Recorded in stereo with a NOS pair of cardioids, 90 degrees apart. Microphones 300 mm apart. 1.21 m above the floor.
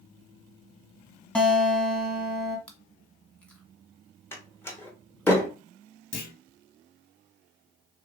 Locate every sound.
1.4 s a guitar: 5° left, 1.3 m
2.7 s chewing: 5° left, 1.3 m
4.3 s a door slam: 10° left, 1.0 m
6.1 s a clunk: 60° left, 1.2 m